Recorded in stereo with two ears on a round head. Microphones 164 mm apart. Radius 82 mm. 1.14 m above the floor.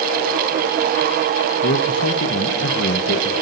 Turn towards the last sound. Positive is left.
turn(degrees=70)  # may be behind; listen again after turning